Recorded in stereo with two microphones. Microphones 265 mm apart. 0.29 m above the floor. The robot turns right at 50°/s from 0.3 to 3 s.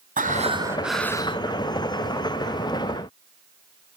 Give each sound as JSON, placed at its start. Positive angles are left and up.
{"t": 0.2, "sound": "breathing", "azimuth_deg": -30, "distance_m": 1.1}